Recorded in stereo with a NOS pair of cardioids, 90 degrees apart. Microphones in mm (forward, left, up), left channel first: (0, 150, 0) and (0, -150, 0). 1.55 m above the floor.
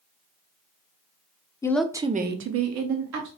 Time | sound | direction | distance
1.6 | a woman speaking | 10° left | 0.7 m